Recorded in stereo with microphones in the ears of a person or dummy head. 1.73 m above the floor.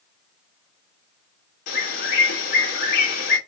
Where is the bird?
50° left (ahead or behind), 2 m.